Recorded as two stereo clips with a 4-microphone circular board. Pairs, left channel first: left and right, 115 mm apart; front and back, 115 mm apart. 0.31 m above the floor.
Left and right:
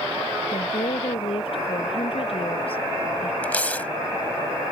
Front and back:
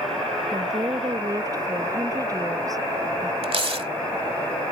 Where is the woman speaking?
125° left.